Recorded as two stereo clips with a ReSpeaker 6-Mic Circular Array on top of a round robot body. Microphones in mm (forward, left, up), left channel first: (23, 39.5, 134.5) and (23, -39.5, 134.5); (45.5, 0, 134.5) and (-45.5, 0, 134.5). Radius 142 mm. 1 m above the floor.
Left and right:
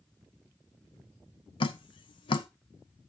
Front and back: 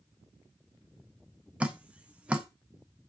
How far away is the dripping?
About 0.6 m.